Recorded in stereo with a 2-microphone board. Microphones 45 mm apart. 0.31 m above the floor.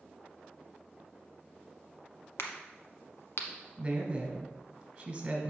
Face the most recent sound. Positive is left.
turn(degrees=-15)  # may be behind; listen again after turning